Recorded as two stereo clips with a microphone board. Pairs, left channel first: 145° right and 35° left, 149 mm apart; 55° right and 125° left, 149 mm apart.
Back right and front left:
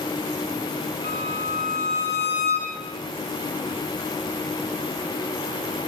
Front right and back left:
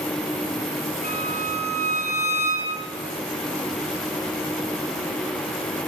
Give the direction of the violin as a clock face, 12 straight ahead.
9 o'clock.